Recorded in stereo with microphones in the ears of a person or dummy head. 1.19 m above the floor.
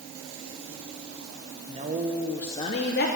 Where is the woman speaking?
35° right (ahead or behind), 0.8 m; by 3.1 s 45° left (ahead or behind), 0.7 m.